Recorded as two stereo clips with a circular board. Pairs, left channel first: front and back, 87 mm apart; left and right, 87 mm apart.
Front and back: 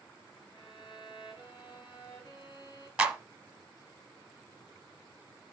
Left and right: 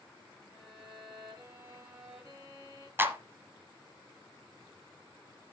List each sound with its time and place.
0.5 s a violin: 30° right, 4.5 m
3.0 s a clap: 115° right, 1.1 m